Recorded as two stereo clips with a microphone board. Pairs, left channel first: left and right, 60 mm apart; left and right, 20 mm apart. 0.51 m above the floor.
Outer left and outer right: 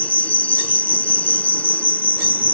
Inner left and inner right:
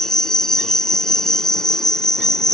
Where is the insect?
30° left (ahead or behind).